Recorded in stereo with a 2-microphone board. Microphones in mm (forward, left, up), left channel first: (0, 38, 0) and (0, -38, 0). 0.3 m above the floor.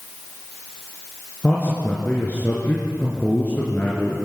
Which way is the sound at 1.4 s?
25° left (ahead or behind).